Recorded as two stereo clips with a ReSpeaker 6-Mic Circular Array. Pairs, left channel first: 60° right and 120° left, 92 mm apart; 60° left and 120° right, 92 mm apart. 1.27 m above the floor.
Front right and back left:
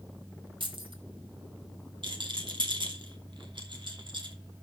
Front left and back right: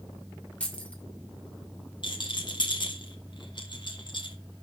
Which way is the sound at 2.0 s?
90° left.